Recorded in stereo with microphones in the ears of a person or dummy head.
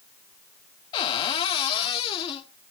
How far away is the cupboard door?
About 1.3 m.